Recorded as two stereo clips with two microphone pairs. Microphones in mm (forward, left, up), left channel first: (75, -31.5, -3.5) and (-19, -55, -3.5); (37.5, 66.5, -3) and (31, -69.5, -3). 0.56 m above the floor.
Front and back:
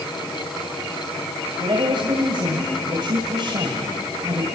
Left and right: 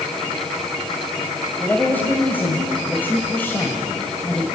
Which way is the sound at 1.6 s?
165° left.